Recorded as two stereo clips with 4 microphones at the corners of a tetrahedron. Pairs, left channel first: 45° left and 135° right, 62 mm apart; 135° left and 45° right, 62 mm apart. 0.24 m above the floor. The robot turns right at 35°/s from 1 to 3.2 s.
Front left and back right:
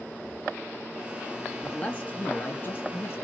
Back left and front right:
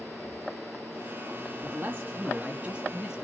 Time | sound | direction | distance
1.6 | a man speaking | 20° right | 1.2 m